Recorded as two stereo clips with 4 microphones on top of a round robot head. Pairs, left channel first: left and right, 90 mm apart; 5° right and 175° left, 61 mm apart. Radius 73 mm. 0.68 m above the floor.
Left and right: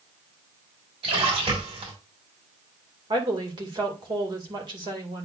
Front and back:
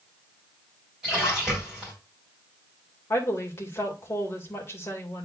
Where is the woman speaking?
55° right, 2.5 m.